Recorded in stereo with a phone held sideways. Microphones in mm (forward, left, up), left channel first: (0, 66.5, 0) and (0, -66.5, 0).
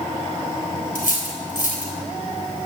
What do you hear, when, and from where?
0.9 s cutlery clinking: 90° left, 3.5 m